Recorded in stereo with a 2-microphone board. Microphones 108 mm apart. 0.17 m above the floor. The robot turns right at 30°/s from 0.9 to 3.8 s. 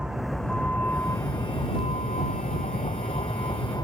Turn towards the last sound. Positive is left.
turn(degrees=35)  # may be behind; listen again after turning